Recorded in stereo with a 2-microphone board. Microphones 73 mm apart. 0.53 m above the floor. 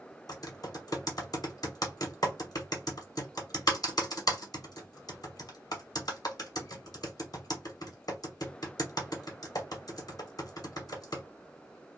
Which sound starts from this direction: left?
Typing on a keyboard, at 0.3 s.